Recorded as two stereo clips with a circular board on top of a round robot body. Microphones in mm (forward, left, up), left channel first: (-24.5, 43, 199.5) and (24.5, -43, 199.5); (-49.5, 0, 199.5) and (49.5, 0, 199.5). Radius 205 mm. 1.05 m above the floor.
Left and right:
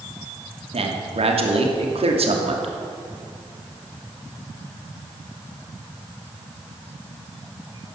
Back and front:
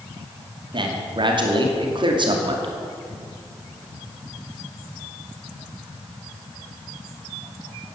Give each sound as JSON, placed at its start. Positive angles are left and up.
{"t": 0.7, "sound": "a man speaking", "azimuth_deg": -40, "distance_m": 2.5}